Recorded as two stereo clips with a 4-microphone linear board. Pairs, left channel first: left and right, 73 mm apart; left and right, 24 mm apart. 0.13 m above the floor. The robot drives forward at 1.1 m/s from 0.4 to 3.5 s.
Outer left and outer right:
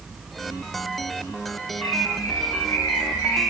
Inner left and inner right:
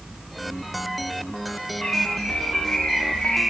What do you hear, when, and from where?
1.8 s a bird: 60° left (ahead or behind), 5 m; by 3.4 s 50° left (ahead or behind), 5.5 m